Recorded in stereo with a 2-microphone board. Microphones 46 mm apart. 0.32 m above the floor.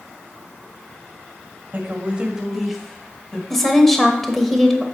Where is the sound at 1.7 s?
45° right (ahead or behind), 1.3 m; by 3.4 s 20° left (ahead or behind), 1.8 m.